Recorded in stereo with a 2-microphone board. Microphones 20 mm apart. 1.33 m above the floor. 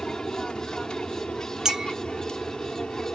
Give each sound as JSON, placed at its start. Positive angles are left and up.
{"t": 0.0, "sound": "an aircraft", "side_deg": 50}
{"t": 1.6, "sound": "a clink", "side_deg": -30}